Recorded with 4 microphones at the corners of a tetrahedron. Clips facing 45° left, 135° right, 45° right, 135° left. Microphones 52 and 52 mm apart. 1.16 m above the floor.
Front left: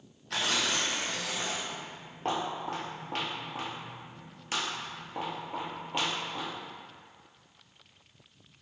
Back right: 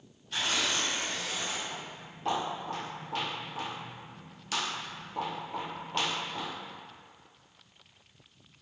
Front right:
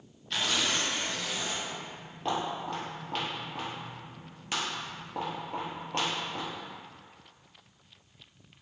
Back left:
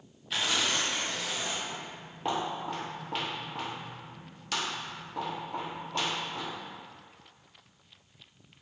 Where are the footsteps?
75° left, 1.9 m; by 6.5 s 40° right, 1.8 m.